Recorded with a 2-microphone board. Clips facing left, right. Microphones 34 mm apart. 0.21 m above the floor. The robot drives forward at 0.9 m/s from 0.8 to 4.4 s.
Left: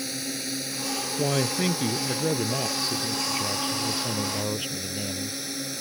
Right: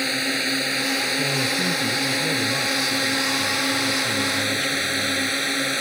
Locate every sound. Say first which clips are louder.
0.0 s a drone: right 10 dB; 50° right (ahead or behind); by 5.8 s 55° right (ahead or behind)
1.2 s a man speaking: right 3 dB; 35° left (ahead or behind); by 5.4 s 20° left (ahead or behind)